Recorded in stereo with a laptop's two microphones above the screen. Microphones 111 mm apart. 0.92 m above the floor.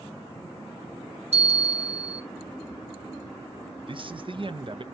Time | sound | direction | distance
1.3 | a bell | 80° right | 2 m
3.9 | a man speaking | 50° right (ahead or behind) | 0.7 m